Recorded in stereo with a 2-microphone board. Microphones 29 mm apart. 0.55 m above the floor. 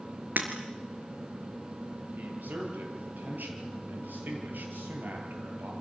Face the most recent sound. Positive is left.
turn(degrees=-85)